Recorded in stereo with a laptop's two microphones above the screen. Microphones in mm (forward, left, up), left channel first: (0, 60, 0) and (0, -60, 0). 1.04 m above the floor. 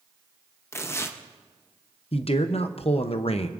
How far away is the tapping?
I don't hear tapping.